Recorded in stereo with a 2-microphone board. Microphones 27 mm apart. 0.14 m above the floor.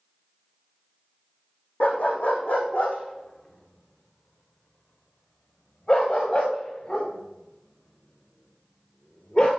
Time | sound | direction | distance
1.8 | a dog barking | 70° left (ahead or behind) | 3 m